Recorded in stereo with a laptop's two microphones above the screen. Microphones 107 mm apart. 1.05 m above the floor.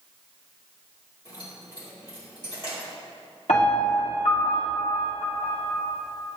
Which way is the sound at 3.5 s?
70° left (ahead or behind).